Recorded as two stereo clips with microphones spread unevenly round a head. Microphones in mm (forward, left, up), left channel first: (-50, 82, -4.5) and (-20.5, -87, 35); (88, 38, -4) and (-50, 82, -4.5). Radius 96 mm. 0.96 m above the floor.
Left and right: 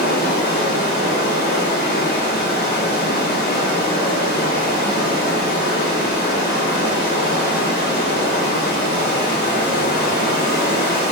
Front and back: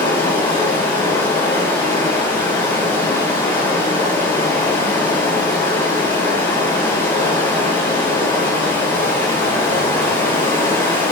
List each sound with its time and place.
0.0 s running water: 55° left, 1.8 m